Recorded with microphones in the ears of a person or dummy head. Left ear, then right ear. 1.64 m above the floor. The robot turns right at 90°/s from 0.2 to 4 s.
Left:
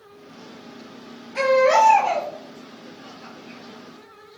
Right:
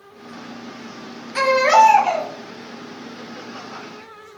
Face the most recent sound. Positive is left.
turn(degrees=150)